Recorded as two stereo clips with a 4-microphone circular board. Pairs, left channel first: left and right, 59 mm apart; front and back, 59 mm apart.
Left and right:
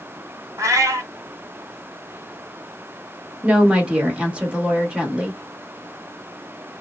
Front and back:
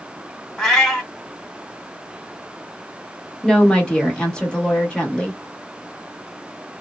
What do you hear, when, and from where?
0.6 s a cat meowing: 85° right, 1.3 m
3.4 s a woman speaking: 50° right, 1.1 m